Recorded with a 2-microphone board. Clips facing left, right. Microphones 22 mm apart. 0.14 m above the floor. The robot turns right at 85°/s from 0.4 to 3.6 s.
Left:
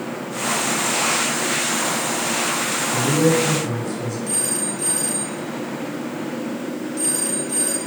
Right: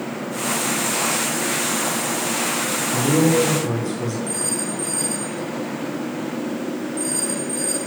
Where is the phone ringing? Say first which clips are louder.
Even; 60° left (ahead or behind), 2.5 m.